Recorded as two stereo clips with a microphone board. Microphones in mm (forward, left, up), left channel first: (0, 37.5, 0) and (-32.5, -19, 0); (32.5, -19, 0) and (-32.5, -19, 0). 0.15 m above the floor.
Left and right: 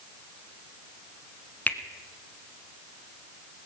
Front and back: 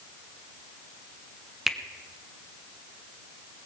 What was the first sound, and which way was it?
A finger snap, 100° left.